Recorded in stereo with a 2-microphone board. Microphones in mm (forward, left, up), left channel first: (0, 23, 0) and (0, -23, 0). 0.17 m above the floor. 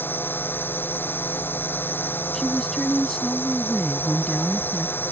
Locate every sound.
0.0 s a drone: 50° left (ahead or behind)
2.3 s a woman speaking: 10° left (ahead or behind)